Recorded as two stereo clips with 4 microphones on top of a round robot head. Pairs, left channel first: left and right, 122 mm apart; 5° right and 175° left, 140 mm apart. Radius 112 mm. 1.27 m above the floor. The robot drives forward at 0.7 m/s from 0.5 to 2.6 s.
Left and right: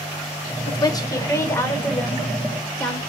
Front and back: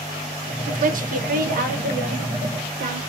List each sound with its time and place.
0.7 s a woman speaking: 145° left, 0.9 m; by 3.0 s 165° left, 2 m